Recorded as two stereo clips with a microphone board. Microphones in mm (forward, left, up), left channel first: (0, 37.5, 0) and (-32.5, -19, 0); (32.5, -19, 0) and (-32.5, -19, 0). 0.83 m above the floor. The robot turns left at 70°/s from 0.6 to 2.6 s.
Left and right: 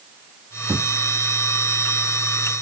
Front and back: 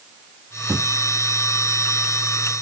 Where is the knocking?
130° right; by 0.9 s 150° right.